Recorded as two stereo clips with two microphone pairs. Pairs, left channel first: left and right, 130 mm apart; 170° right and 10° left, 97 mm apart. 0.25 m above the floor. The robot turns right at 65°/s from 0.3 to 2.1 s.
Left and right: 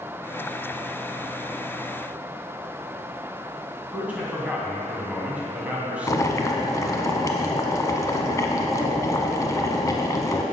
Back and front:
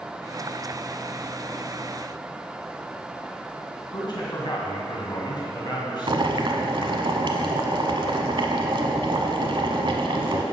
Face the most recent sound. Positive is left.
turn(degrees=30)